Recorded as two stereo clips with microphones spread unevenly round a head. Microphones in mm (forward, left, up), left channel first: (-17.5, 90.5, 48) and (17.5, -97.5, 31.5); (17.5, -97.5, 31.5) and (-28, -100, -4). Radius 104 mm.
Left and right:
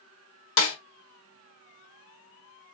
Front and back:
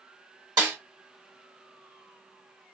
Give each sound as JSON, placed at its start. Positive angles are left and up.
{"t": 0.6, "sound": "a snare drum", "azimuth_deg": 115, "distance_m": 1.2}